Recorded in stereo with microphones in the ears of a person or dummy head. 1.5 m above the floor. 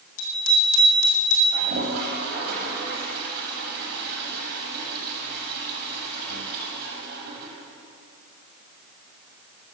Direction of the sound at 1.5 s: 60° right (ahead or behind).